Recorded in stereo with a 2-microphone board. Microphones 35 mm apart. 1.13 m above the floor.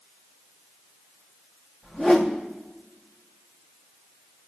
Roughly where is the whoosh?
Centre.